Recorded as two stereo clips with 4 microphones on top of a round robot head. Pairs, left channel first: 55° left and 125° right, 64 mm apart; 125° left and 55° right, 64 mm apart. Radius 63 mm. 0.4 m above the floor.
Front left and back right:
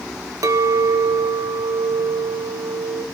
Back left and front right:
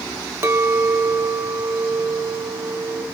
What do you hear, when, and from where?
0.4 s a clink: 100° right, 1.3 m